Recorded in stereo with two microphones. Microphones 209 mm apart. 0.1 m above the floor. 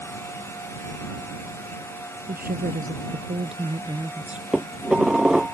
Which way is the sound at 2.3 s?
50° right (ahead or behind).